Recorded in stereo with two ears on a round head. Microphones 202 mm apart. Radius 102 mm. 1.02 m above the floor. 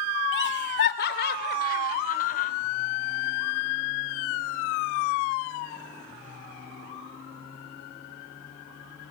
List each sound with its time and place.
0.3 s laughter: 60° left (ahead or behind), 3 m; by 2.5 s 40° left (ahead or behind), 3.5 m